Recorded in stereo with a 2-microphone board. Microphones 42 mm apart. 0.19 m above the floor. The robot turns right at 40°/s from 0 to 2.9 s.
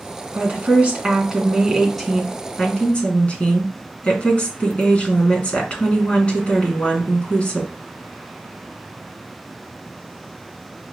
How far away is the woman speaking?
About 2.5 m.